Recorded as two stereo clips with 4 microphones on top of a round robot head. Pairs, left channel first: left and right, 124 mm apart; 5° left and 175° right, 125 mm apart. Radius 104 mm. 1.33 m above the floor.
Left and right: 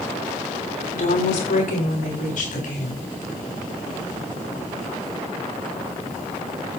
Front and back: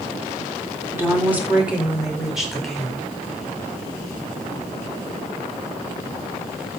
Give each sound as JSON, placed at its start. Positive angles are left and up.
{"t": 0.9, "sound": "a woman speaking", "azimuth_deg": 110, "distance_m": 5.0}